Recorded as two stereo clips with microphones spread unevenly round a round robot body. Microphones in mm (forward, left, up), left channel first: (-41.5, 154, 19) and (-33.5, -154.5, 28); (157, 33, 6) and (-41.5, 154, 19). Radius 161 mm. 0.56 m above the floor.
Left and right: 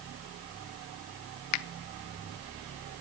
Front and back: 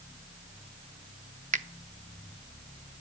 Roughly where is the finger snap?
Left.